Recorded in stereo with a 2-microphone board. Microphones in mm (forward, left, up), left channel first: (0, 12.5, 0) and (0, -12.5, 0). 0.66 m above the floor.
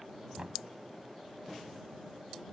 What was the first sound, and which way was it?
Knocking, 35° right (ahead or behind).